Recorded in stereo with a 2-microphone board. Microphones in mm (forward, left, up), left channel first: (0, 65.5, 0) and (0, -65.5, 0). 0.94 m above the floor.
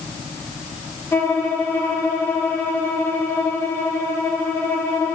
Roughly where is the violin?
Centre.